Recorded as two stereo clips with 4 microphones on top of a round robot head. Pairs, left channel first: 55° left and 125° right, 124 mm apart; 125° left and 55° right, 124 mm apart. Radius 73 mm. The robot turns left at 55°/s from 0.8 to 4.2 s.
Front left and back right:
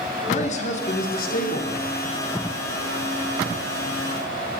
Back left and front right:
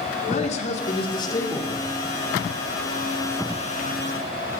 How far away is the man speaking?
About 5 m.